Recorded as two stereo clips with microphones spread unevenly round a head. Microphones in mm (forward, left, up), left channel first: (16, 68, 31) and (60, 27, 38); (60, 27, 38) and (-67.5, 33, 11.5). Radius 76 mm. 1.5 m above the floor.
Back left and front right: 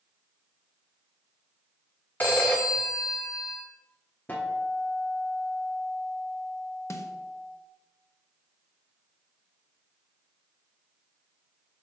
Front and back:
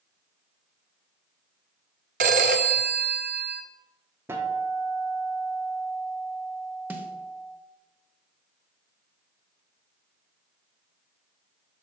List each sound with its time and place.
2.2 s a phone ringing: 140° right, 0.7 m
4.3 s a guitar: 100° left, 1.1 m
6.9 s a snare drum: 100° left, 1.1 m